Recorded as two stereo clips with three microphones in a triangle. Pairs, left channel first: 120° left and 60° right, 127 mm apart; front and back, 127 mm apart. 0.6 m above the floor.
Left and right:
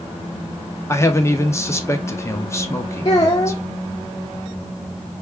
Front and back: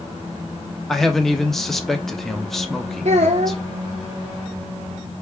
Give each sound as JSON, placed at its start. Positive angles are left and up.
{"t": 0.9, "sound": "a man speaking", "azimuth_deg": 85, "distance_m": 0.6}
{"t": 3.0, "sound": "a child speaking", "azimuth_deg": 175, "distance_m": 0.6}